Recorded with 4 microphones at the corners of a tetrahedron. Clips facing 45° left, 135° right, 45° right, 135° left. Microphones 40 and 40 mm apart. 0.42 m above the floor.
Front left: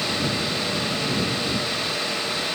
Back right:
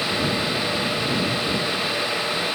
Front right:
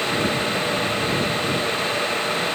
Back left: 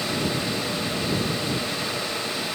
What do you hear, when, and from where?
Only background noise.